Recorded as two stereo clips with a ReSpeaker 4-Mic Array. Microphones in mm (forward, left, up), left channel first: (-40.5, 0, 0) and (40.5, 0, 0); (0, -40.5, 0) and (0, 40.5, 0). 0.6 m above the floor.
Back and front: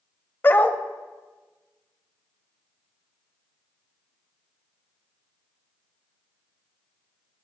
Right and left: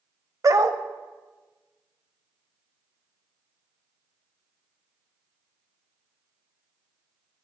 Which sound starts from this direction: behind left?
A dog barking, at 0.4 s.